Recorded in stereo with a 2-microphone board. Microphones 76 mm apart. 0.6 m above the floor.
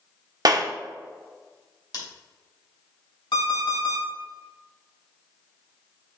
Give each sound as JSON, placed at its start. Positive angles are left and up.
{"t": 0.5, "sound": "a clap", "side_deg": -55, "distance_m": 0.8}
{"t": 1.9, "sound": "scissors", "side_deg": 65, "distance_m": 2.5}
{"t": 3.3, "sound": "an alarm clock", "side_deg": 75, "distance_m": 2.5}